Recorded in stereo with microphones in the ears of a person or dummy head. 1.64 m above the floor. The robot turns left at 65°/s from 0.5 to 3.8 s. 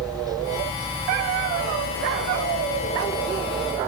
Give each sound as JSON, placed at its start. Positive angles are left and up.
{"t": 0.0, "sound": "a helicopter", "side_deg": -20}